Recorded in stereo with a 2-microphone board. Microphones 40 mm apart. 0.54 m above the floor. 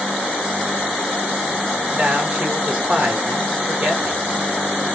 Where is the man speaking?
40° right (ahead or behind), 1.2 m.